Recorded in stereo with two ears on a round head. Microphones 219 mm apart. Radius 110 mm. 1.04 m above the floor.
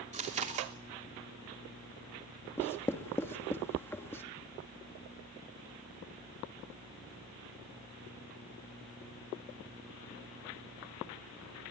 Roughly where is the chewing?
Right.